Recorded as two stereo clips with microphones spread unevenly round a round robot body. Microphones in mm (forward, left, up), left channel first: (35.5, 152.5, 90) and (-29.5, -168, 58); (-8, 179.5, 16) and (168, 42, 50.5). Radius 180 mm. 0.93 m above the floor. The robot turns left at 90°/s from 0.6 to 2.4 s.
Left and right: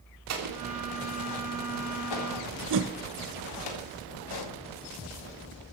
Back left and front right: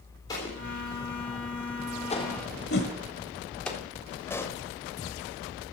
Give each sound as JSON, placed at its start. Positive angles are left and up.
{"t": 0.3, "sound": "an explosion", "azimuth_deg": -140, "distance_m": 3.5}
{"t": 2.7, "sound": "a whoosh", "azimuth_deg": -155, "distance_m": 1.0}
{"t": 4.3, "sound": "a pop", "azimuth_deg": 60, "distance_m": 2.0}